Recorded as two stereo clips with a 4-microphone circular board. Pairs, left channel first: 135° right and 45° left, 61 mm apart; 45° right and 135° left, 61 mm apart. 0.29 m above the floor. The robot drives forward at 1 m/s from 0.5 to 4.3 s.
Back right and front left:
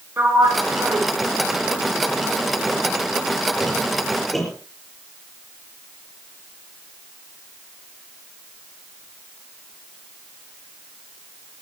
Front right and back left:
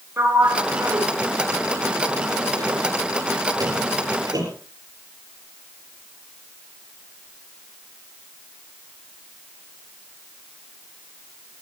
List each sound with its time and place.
0.2 s a sliding door: 90° left, 3.5 m; by 4.5 s 135° left, 5.5 m